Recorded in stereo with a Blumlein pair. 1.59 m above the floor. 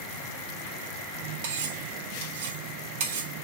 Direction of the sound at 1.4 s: 60° right.